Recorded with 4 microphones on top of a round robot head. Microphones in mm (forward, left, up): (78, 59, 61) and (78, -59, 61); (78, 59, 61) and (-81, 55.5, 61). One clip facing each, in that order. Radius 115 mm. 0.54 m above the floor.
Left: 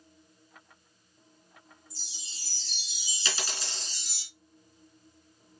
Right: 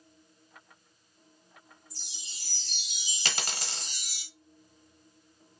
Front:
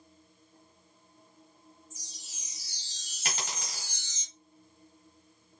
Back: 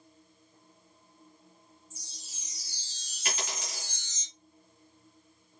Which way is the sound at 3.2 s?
60° right.